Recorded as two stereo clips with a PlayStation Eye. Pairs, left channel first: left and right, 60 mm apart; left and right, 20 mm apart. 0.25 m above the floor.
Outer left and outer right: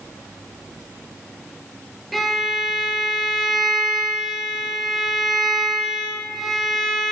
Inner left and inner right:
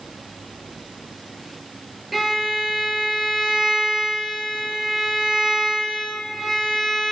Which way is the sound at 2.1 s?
5° left (ahead or behind).